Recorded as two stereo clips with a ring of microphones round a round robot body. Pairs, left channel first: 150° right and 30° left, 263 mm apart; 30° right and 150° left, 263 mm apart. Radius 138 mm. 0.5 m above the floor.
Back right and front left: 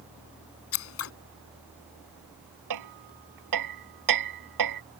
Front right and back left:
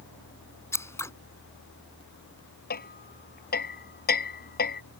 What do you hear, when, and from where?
0.7 s scissors: 110° right
2.7 s hammering: 25° left